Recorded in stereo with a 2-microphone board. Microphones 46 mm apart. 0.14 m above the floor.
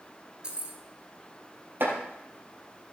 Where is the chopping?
55° right (ahead or behind), 3.5 m.